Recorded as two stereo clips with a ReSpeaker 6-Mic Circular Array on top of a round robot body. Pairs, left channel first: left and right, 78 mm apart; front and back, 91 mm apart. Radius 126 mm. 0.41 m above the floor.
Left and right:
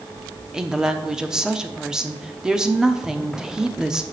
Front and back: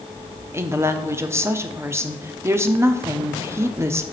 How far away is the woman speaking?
About 1.0 m.